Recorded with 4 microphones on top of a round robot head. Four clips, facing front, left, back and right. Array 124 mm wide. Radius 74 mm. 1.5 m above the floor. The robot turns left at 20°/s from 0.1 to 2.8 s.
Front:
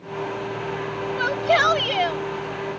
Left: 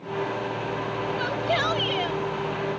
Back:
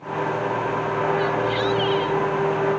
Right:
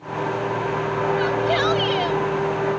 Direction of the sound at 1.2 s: 5° left.